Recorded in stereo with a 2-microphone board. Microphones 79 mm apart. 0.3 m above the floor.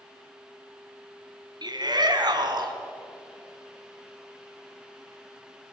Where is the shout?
60° right (ahead or behind), 3 m.